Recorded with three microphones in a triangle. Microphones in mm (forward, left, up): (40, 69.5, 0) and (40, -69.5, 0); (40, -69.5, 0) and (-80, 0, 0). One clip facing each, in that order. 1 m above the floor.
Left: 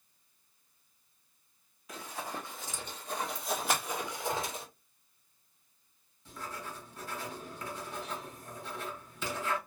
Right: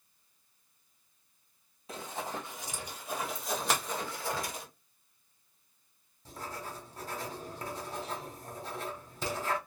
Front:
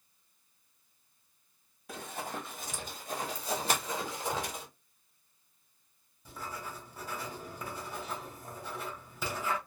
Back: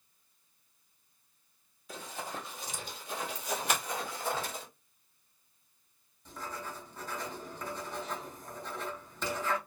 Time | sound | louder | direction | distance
1.9 | running footsteps | right 2 dB, front 1 dB | 35° right | 1.6 m
3.7 | a finger snap | even, front 1 dB | 85° right | 1.2 m
6.2 | writing | right 1 dB, back 1 dB | 110° right | 1.0 m